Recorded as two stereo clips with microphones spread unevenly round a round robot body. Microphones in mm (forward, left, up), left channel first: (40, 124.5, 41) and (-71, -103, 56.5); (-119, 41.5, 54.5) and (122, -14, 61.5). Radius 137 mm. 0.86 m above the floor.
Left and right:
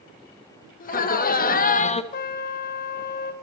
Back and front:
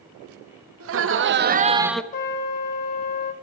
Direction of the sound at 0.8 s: 10° left.